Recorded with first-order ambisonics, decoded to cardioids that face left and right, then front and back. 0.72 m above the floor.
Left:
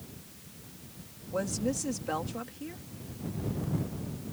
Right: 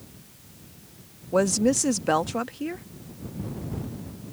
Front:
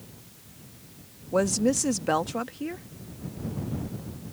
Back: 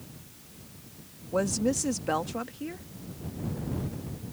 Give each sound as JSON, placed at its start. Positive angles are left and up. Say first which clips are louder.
{"t": 1.3, "sound": "a woman speaking", "louder": "right 10 dB, front 3 dB", "azimuth_deg": -70}